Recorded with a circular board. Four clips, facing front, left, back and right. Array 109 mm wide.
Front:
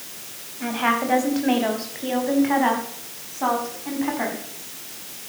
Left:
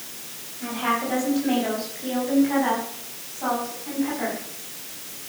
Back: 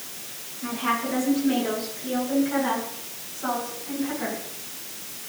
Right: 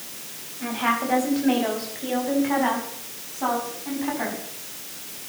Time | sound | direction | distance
0.6 | a woman speaking | 15° right | 6 m